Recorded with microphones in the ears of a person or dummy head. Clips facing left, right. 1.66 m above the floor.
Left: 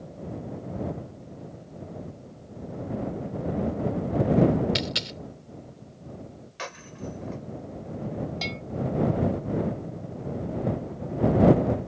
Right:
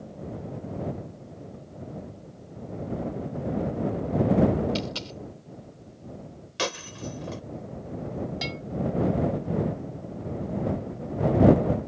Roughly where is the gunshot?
No gunshot in this recording.